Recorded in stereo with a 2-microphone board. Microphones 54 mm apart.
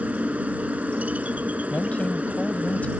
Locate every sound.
0.0 s a helicopter: 25° right (ahead or behind)
1.7 s a man speaking: 30° left (ahead or behind)